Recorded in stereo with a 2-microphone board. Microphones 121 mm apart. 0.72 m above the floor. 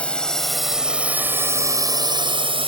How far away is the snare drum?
I don't hear a snare drum.